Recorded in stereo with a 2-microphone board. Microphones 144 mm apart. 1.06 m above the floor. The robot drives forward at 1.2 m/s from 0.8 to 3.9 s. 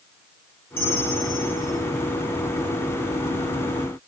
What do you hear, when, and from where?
0.8 s a bell: 15° left (ahead or behind), 5 m; by 1.8 s 20° left (ahead or behind), 4 m